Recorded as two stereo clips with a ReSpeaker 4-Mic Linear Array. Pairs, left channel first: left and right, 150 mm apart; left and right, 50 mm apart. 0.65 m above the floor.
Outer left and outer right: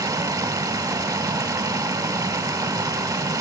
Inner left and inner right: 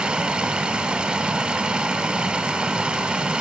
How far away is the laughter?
No laughter in this recording.